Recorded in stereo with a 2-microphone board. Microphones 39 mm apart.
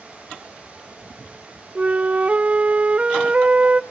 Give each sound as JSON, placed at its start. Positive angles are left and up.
{"t": 1.8, "sound": "a flute", "side_deg": -30, "distance_m": 0.7}